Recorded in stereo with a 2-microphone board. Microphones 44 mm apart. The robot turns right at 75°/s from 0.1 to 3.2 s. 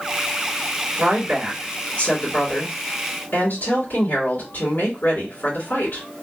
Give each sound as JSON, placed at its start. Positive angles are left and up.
{"t": 1.0, "sound": "a woman speaking", "azimuth_deg": -40, "distance_m": 2.5}